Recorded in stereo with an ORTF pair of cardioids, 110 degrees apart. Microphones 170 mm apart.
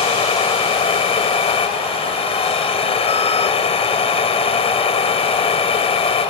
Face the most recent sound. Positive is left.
turn(degrees=35)